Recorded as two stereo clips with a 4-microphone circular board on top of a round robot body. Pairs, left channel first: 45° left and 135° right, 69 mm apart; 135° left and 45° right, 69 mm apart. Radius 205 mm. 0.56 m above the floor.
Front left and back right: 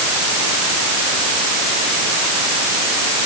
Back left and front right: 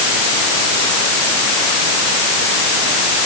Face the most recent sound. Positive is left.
No sound to turn to.